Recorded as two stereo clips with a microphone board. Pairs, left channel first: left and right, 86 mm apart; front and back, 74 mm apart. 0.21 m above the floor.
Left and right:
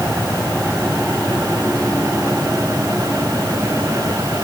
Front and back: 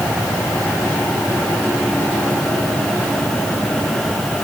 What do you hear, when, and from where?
Only background noise.